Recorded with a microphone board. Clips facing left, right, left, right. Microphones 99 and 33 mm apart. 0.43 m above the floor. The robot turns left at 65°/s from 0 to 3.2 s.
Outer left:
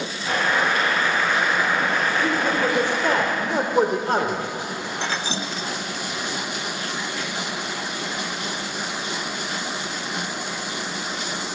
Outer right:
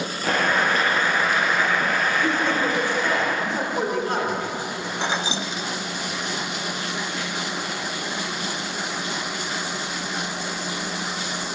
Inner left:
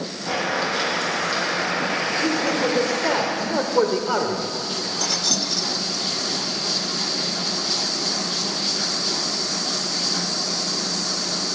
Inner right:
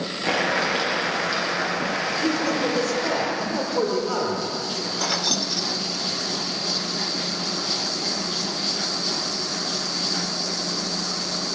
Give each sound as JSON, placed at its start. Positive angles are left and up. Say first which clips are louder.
{"t": 0.2, "sound": "boiling", "louder": "even, inner right 1 dB", "azimuth_deg": -100, "distance_m": 5.5}
{"t": 2.2, "sound": "a man speaking", "louder": "outer left 1 dB, inner left 1 dB", "azimuth_deg": 180, "distance_m": 1.7}
{"t": 5.0, "sound": "keys jangling", "louder": "outer right 3 dB, inner right 1 dB", "side_deg": -20, "distance_m": 0.7}